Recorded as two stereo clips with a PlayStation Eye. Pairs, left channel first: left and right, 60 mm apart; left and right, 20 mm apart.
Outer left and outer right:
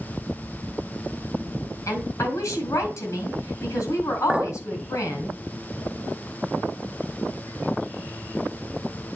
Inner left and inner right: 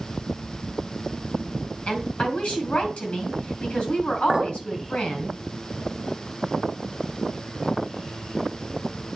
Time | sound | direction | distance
1.9 | a woman speaking | 55° left (ahead or behind) | 3 m
4.3 | a clink | 10° right (ahead or behind) | 0.9 m